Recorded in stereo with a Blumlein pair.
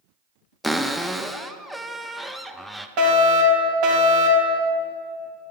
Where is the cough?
I don't hear a cough.